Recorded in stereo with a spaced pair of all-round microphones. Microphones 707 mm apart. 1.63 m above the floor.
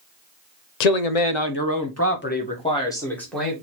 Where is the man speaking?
70° left (ahead or behind), 0.5 m; by 3.5 s centre (ahead or behind), 1.6 m.